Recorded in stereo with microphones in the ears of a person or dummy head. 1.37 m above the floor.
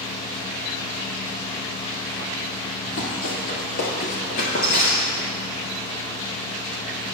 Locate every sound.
2.9 s running footsteps: 55° left (ahead or behind), 2 m; by 5.3 s 25° left (ahead or behind), 1.5 m